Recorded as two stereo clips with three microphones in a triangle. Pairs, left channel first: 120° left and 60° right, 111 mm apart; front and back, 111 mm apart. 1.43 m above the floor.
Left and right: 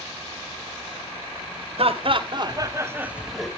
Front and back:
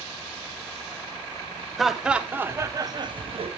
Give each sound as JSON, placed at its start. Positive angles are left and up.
{"t": 1.8, "sound": "laughter", "azimuth_deg": -90, "distance_m": 1.3}